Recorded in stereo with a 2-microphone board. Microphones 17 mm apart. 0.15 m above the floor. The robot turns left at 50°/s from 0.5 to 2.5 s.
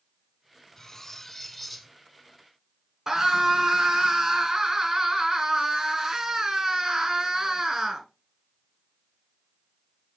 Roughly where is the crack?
I don't hear a crack.